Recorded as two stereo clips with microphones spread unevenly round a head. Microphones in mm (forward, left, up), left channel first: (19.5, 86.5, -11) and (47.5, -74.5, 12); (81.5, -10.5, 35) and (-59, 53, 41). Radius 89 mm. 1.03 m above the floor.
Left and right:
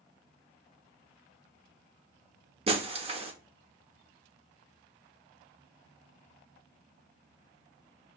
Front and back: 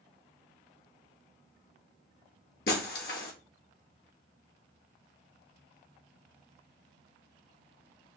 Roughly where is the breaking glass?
Ahead right.